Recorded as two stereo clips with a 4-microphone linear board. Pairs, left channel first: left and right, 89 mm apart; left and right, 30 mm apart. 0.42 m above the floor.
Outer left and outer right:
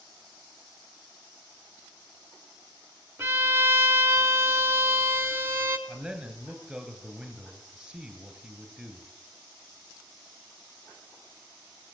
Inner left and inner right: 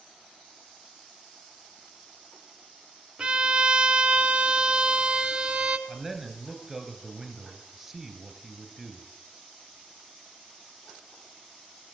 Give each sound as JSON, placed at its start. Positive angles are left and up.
{"t": 3.2, "sound": "a violin", "side_deg": -30, "distance_m": 0.9}
{"t": 5.9, "sound": "a man speaking", "side_deg": -5, "distance_m": 3.0}